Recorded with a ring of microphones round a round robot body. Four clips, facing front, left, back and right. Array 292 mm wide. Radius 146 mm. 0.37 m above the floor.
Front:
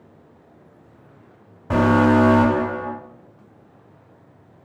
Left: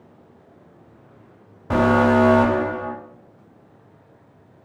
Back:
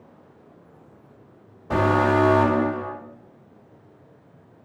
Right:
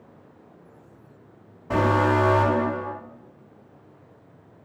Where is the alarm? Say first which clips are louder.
Left 4 dB, front 4 dB; 55° left, 1.7 m.